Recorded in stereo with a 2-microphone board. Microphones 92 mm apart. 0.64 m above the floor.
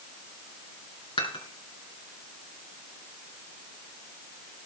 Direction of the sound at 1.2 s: 70° left (ahead or behind).